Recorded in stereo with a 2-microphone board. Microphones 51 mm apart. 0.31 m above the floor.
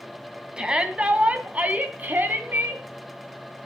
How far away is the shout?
About 2 m.